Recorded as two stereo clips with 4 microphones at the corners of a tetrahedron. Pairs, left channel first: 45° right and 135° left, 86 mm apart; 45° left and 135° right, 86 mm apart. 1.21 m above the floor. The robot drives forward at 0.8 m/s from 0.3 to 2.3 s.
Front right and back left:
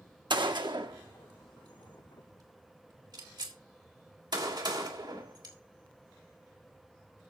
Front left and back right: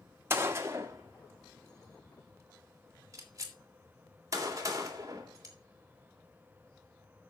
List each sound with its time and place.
0.3 s a gunshot: 165° left, 1.2 m; by 5.5 s 175° left, 3 m